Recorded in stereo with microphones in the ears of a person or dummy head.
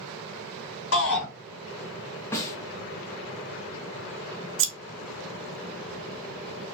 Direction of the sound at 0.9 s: 70° left (ahead or behind).